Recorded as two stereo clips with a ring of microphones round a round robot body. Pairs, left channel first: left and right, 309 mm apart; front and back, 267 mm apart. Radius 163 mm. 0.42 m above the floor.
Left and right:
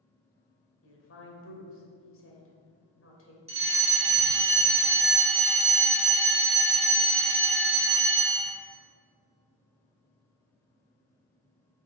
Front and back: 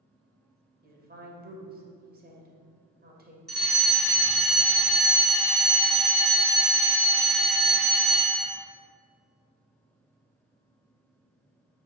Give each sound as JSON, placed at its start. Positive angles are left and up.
{"t": 0.8, "sound": "a woman speaking", "azimuth_deg": 130, "distance_m": 2.5}
{"t": 3.5, "sound": "a fire alarm", "azimuth_deg": -85, "distance_m": 2.0}